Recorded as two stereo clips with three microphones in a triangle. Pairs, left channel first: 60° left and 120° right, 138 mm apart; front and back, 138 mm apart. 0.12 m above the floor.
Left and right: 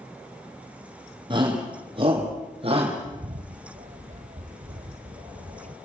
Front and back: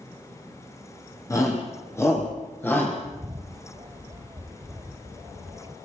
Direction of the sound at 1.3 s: 65° right.